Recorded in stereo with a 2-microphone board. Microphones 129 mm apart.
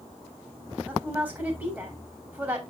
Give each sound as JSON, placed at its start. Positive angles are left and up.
{"t": 0.9, "sound": "a woman speaking", "side_deg": -15, "distance_m": 5.0}